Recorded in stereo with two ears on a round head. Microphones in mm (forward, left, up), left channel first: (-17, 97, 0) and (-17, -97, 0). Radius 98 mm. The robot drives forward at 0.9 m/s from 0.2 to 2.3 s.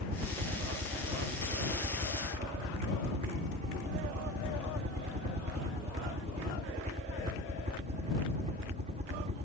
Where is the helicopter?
30° right (ahead or behind).